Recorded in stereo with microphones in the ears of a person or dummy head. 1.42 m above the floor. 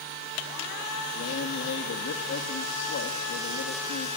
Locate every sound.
1.1 s a man speaking: 70° left (ahead or behind), 2.5 m